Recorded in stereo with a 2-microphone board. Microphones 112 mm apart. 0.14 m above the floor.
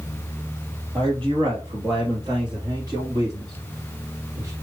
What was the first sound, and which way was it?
A man speaking, 45° right (ahead or behind).